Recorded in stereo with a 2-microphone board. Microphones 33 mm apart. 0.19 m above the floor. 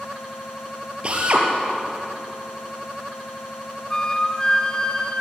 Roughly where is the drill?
Right.